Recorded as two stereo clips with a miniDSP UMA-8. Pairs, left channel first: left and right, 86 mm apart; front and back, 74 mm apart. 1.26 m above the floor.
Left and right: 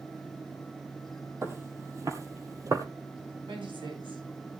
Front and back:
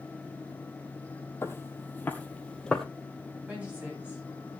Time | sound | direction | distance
1.4 | footsteps | 40° right | 1.8 m
3.5 | a woman speaking | 110° right | 9.5 m